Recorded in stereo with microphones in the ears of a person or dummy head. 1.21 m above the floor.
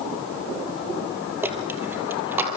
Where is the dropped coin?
10° right (ahead or behind), 3.5 m.